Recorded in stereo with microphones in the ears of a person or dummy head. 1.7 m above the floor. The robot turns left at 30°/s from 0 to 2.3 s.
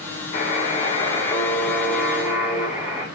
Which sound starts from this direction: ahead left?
A buzzer, at 0.3 s.